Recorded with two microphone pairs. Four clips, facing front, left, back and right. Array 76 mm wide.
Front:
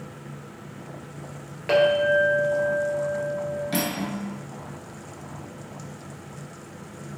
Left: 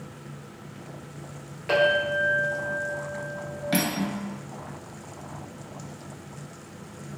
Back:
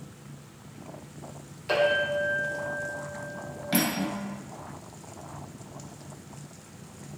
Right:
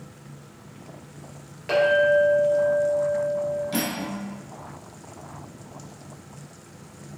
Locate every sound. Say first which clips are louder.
1.7 s a clink: right 4 dB, front 6 dB; straight ahead, 1.4 m
3.7 s cutlery clinking: left 1 dB, even; 100° left, 1.0 m